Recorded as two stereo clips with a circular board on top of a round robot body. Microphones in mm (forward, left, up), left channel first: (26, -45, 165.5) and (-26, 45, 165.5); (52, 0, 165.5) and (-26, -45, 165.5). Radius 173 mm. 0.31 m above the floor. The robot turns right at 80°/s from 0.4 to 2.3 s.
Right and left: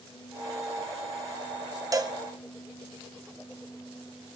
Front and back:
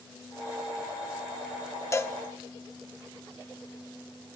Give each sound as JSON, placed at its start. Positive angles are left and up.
{"t": 1.9, "sound": "a cowbell", "azimuth_deg": 75, "distance_m": 1.1}